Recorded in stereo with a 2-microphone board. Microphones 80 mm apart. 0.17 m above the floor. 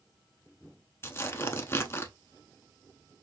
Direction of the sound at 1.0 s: 35° left (ahead or behind).